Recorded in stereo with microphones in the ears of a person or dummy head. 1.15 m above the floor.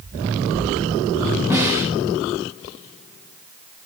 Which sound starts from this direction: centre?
A snare drum, at 1.5 s.